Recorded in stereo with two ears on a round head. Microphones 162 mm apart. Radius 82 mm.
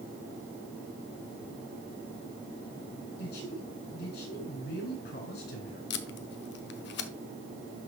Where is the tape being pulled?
70° left (ahead or behind), 0.8 m.